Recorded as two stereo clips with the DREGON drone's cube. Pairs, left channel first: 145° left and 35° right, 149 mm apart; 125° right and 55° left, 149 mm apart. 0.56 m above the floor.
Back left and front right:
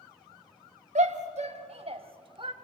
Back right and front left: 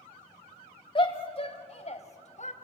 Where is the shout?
70° right, 2.5 m; by 2.5 s 90° right, 2.5 m.